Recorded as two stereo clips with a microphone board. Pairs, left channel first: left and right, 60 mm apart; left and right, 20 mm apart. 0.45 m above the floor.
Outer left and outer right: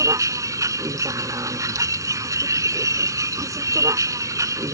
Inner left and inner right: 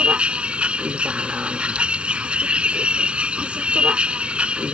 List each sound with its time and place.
0.0 s a vehicle: 75° right (ahead or behind)